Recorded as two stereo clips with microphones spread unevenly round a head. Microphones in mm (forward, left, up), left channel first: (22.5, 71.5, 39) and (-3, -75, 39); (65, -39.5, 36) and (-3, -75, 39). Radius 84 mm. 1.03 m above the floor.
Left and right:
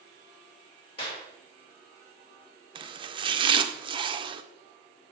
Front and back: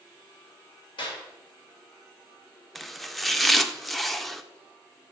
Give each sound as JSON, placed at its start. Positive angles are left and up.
{"t": 1.0, "sound": "a clap", "azimuth_deg": 30, "distance_m": 2.0}
{"t": 2.8, "sound": "chopping", "azimuth_deg": -60, "distance_m": 0.5}